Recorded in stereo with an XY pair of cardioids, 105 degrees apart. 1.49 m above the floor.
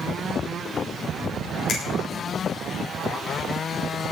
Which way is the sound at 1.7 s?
70° left.